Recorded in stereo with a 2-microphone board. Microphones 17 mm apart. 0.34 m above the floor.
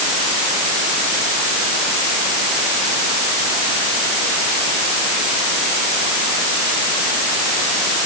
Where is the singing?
No singing in this recording.